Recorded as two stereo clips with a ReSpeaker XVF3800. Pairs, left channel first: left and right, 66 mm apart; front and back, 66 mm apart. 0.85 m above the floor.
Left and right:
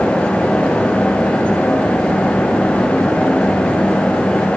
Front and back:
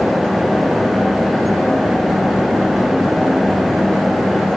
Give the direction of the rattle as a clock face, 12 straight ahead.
I don't hear a rattle.